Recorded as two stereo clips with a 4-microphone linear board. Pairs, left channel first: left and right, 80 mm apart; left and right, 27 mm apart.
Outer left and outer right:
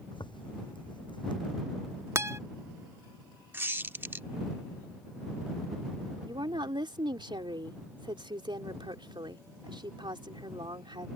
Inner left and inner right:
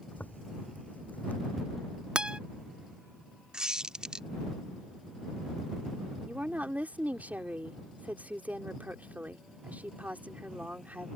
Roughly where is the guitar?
Right.